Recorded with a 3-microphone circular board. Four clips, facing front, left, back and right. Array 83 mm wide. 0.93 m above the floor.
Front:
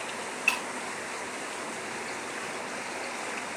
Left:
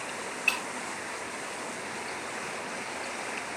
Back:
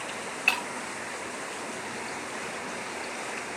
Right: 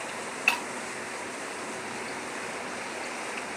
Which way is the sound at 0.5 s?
125° right.